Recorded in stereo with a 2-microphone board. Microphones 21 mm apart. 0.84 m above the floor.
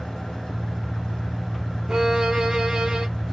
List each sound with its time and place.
0.0 s an engine running: 50° left (ahead or behind), 0.9 m
1.9 s a violin: 45° right (ahead or behind), 1.5 m